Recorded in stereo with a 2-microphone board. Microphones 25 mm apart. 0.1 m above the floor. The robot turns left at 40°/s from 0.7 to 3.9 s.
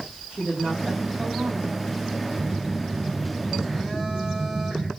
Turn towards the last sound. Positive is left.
turn(degrees=170)